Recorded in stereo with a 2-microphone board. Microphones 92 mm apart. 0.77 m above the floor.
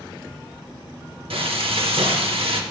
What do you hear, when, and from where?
1.3 s frying: 80° right, 0.8 m